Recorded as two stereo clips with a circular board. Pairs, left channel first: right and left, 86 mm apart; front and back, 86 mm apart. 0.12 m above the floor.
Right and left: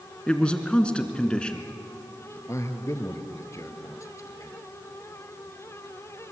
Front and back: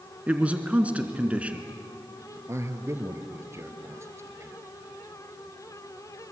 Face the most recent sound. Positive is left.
turn(degrees=-135)